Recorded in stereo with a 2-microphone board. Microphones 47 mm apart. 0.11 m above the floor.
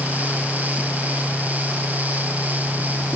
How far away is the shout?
I don't hear a shout.